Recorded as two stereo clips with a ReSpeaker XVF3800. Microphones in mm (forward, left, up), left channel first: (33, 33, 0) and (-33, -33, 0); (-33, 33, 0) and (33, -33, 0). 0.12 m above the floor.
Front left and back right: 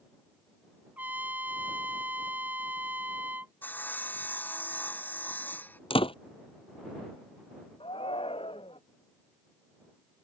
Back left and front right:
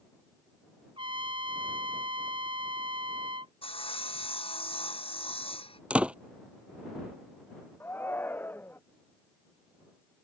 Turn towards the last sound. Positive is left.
turn(degrees=65)